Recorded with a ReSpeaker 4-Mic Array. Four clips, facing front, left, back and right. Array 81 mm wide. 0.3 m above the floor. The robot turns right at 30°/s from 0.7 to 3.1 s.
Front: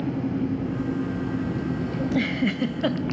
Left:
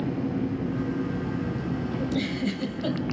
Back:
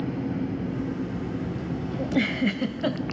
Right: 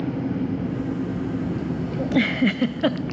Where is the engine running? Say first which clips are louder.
Right 2 dB, front 3 dB; 90° right, 8 m; by 3.1 s 15° right, 8 m.